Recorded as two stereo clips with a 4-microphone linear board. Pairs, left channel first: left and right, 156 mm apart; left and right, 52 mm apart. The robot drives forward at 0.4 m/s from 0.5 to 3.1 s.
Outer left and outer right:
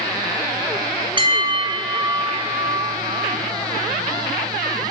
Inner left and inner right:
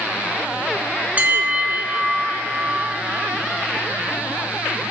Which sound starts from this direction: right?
A bell, at 1.2 s.